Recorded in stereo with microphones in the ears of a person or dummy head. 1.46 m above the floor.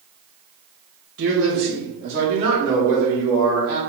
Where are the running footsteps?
I don't hear running footsteps.